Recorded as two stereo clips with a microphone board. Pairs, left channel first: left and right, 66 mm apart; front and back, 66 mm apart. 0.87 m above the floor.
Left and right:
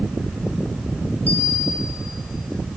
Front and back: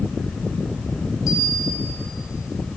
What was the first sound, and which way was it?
A bell, 25° left.